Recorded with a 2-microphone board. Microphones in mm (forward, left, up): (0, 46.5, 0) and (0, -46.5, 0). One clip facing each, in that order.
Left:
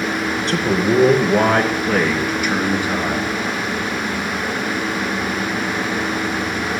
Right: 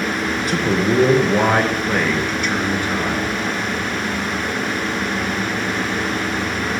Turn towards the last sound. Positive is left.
turn(degrees=15)  # may be behind; listen again after turning